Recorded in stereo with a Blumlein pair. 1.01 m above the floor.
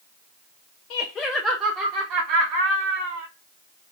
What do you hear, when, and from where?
0.9 s laughter: 45° left, 0.6 m; by 3.3 s 55° right, 2 m